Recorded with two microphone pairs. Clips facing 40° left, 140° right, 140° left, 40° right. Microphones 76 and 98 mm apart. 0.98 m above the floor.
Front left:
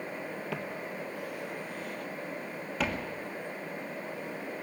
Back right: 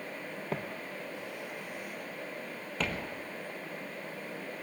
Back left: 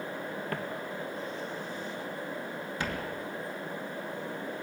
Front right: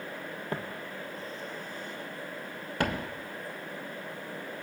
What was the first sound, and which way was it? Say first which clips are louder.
Footsteps: front left 1 dB, back left 1 dB; 100° right.